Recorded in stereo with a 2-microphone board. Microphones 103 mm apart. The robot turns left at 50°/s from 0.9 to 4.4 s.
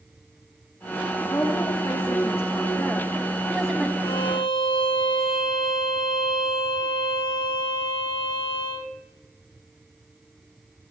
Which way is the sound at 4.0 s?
40° left (ahead or behind).